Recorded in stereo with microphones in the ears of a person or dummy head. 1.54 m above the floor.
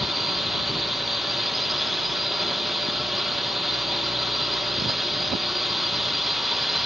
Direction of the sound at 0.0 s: 10° right (ahead or behind).